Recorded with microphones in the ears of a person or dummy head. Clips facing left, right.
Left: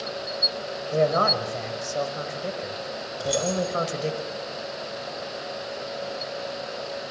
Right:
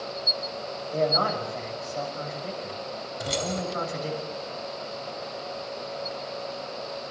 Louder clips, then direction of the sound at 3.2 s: Left 5 dB; 25° right (ahead or behind).